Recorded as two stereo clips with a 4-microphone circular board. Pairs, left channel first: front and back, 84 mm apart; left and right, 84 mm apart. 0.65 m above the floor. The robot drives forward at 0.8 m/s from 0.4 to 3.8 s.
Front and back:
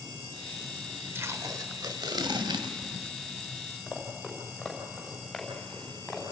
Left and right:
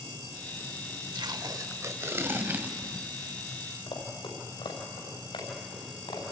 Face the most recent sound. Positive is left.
turn(degrees=90)